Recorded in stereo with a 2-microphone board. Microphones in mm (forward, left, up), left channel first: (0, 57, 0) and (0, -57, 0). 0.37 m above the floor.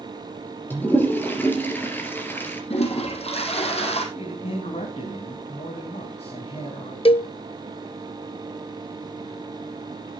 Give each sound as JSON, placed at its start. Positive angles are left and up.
{"t": 0.7, "sound": "a toilet flushing", "side_deg": 15, "distance_m": 3.0}
{"t": 2.7, "sound": "a toilet flushing", "side_deg": 65, "distance_m": 3.5}
{"t": 4.2, "sound": "a man speaking", "side_deg": 65, "distance_m": 3.0}
{"t": 7.0, "sound": "a cowbell", "side_deg": 55, "distance_m": 0.5}